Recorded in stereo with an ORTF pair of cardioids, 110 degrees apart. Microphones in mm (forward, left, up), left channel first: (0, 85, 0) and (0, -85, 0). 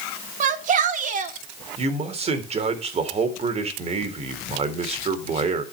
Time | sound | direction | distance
0.4 | a shout | 50° right | 3 m
1.8 | a man speaking | 40° right | 3.5 m